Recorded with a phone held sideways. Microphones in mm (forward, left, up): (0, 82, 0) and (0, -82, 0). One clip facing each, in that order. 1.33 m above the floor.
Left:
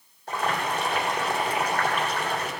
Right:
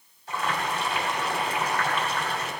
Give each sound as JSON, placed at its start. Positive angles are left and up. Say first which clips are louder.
{"t": 0.3, "sound": "boiling", "louder": "left 2 dB", "side_deg": 60, "distance_m": 3.5}